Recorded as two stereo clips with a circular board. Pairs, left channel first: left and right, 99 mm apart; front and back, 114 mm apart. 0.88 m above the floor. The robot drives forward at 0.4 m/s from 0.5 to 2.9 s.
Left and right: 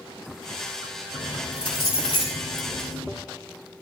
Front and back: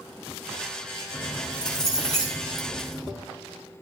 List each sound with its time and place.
1.1 s keys jangling: 80° left, 4 m; by 3.1 s 90° left, 3.5 m